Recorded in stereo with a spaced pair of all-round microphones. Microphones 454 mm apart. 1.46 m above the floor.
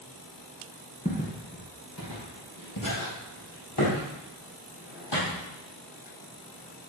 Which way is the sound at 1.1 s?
20° left (ahead or behind).